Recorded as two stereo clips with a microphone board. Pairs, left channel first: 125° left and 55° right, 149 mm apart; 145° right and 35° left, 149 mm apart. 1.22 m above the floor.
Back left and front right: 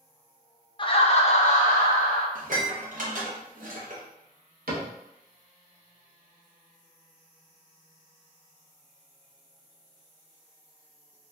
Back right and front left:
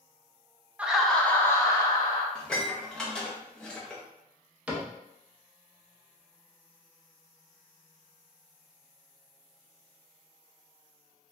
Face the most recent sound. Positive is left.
turn(degrees=-50)